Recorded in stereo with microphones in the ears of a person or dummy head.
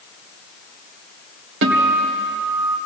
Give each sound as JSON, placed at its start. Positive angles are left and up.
{"t": 1.6, "sound": "a guitar", "side_deg": -75, "distance_m": 2.5}